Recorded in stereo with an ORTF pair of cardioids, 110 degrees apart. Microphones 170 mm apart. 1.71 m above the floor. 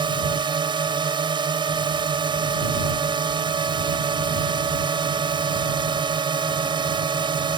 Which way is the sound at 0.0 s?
25° right.